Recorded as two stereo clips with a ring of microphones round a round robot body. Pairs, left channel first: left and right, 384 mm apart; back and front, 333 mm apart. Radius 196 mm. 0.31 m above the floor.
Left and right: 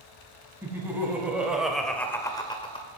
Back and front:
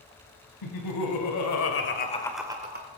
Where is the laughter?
175° right, 3 m; by 2.9 s 25° left, 1.4 m.